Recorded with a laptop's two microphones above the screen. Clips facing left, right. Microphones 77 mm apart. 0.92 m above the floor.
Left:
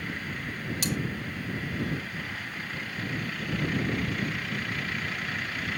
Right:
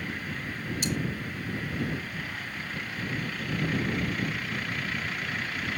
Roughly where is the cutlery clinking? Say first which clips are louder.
Even; left.